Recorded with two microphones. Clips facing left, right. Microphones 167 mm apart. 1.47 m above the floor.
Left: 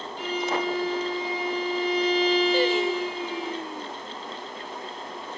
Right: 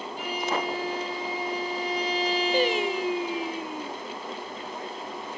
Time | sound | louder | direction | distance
0.2 | a violin | left 2 dB | 10° right (ahead or behind) | 6 m
2.5 | singing | left 2 dB | 15° right (ahead or behind) | 0.6 m